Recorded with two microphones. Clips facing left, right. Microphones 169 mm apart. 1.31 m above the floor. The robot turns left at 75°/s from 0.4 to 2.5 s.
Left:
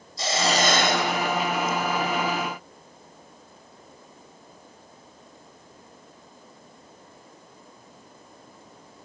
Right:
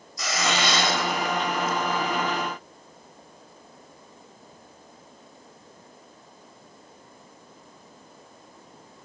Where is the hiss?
150° left, 3 m; by 1.8 s 45° left, 3 m.